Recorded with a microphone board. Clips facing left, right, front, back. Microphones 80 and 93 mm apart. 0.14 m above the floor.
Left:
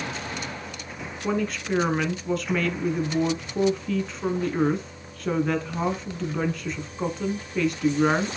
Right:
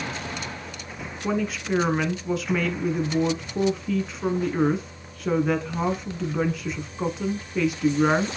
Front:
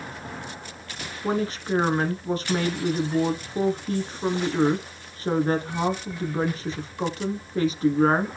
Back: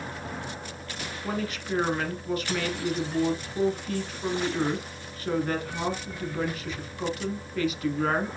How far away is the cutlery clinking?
No cutlery clinking in this recording.